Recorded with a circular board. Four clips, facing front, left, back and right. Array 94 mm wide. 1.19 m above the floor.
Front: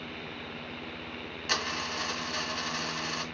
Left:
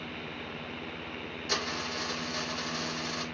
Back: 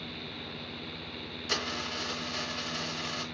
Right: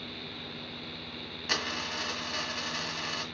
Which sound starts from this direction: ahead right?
A dropped coin, at 1.5 s.